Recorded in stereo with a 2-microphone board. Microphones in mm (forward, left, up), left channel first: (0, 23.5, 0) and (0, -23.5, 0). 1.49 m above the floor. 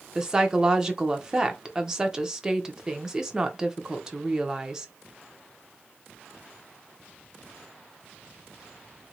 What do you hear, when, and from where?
0.1 s a woman speaking: 15° right (ahead or behind), 0.8 m